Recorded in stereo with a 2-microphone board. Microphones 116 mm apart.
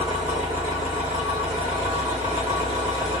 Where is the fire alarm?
No fire alarm in this recording.